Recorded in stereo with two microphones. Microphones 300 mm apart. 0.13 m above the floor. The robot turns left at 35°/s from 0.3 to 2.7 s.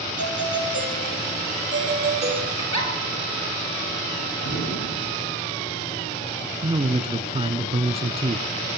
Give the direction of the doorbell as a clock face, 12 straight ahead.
3 o'clock.